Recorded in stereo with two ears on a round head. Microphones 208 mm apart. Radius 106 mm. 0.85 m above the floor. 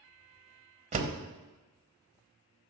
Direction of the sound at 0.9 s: 30° right (ahead or behind).